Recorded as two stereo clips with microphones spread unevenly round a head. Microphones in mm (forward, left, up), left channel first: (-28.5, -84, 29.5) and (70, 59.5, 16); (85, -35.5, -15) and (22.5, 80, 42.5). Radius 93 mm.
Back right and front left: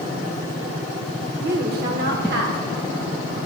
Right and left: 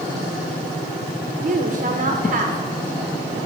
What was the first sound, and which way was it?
A woman speaking, 95° left.